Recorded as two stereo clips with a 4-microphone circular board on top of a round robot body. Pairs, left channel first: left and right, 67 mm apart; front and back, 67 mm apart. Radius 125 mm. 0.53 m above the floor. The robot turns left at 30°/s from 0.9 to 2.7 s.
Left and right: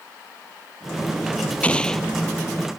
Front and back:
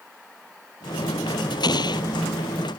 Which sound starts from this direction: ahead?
An explosion, at 1.6 s.